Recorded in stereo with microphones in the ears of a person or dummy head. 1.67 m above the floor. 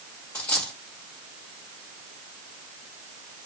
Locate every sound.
0.3 s a dropped coin: 10° left (ahead or behind), 1.9 m